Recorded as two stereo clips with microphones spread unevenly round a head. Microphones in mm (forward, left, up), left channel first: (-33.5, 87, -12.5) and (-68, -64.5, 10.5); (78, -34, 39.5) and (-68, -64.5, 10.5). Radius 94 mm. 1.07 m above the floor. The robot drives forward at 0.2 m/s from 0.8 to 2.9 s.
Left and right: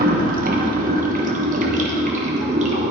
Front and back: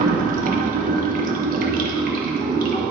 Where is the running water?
135° right, 1.2 m; by 2.9 s 145° right, 1.5 m.